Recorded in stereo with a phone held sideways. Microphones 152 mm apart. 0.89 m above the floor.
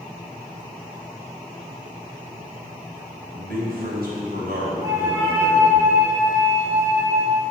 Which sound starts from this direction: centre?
A flute, at 4.8 s.